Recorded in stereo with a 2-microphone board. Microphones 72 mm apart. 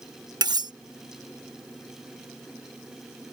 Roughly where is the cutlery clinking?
Right.